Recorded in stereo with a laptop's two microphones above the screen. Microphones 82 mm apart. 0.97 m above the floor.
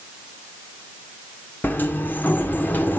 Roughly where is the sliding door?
Left.